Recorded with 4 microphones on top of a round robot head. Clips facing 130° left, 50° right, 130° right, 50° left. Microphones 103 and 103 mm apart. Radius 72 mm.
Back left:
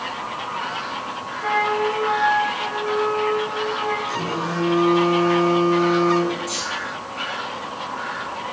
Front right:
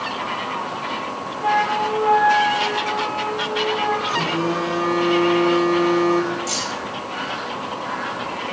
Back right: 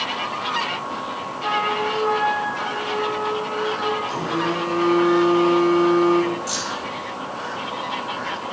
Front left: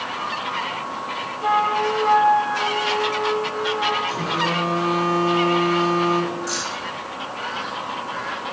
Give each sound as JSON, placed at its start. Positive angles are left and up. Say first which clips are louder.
{"t": 1.4, "sound": "a flute", "louder": "front right 1 dB, front left 3 dB", "azimuth_deg": -5, "distance_m": 3.0}
{"t": 4.1, "sound": "a phone buzzing", "louder": "front right 3 dB, even", "azimuth_deg": -40, "distance_m": 3.5}
{"t": 6.5, "sound": "keys jangling", "louder": "front right 2 dB, even", "azimuth_deg": -55, "distance_m": 2.5}